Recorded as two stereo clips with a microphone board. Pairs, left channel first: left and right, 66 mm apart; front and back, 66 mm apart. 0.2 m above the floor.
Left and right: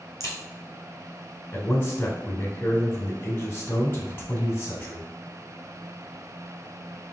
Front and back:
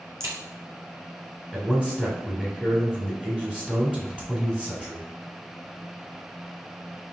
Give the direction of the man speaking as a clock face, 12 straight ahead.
8 o'clock.